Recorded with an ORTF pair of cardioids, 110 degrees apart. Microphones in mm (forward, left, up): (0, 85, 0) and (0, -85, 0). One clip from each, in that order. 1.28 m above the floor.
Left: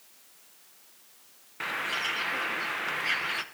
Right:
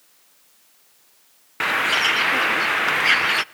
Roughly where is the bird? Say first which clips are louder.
Right 11 dB; ahead right.